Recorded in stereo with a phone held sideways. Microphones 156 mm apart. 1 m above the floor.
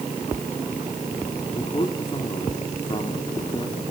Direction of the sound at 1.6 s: 30° left (ahead or behind).